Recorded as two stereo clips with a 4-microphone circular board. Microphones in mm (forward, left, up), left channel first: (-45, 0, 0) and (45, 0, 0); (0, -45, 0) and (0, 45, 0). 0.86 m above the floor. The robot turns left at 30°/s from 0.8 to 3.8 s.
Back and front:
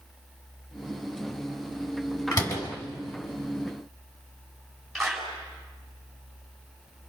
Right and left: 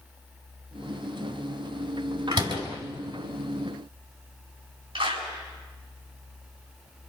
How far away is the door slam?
About 5.5 m.